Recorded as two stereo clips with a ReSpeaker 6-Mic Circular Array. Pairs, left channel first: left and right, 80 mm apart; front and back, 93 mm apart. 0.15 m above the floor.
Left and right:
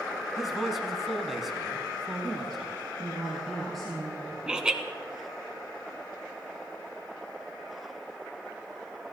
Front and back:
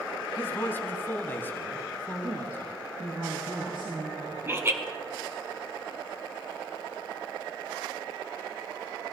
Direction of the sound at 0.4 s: Straight ahead.